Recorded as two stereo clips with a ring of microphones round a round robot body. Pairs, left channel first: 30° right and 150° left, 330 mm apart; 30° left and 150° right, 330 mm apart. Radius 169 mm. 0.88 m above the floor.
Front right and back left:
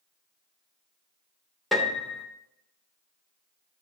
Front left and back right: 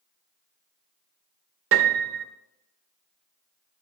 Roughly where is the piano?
Behind right.